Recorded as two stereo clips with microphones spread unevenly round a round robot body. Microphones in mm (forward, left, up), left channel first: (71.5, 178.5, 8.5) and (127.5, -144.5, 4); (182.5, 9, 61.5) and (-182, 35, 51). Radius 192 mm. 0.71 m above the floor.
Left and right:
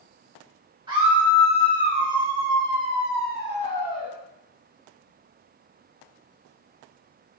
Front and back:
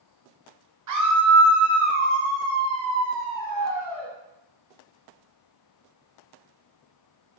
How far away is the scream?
About 1.0 m.